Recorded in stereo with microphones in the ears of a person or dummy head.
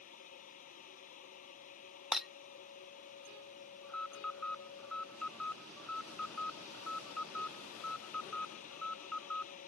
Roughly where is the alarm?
Centre.